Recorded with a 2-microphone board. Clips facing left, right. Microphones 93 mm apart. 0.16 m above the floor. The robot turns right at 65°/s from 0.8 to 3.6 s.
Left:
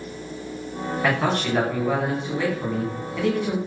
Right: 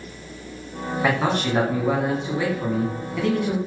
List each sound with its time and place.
1.0 s a man speaking: 15° right (ahead or behind), 1.2 m; by 3.6 s 10° left (ahead or behind), 1.2 m